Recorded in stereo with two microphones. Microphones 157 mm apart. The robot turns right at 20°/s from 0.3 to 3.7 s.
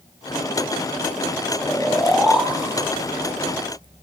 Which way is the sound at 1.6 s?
10° left (ahead or behind).